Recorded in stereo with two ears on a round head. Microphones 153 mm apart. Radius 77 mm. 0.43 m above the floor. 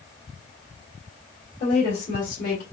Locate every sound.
1.6 s a woman speaking: 50° left (ahead or behind), 2 m